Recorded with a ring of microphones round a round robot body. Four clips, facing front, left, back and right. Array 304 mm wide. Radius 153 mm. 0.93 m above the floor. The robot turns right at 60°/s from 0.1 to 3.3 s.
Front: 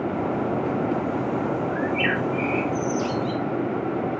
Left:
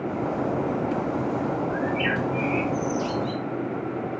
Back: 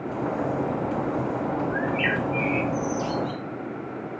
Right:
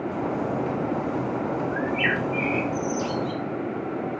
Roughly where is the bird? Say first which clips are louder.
Even, front 2 dB; behind right.